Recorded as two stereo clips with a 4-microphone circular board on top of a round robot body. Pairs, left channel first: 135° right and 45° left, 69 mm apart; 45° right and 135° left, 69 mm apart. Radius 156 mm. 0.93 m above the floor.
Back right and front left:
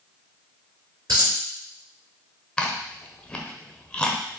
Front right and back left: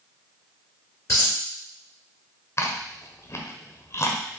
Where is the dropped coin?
5° left, 2.5 m.